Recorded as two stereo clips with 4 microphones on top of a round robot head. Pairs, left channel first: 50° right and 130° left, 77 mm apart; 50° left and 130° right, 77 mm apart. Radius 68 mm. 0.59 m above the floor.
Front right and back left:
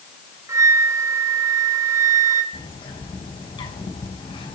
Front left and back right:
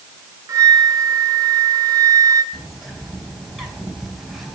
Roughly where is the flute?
Behind.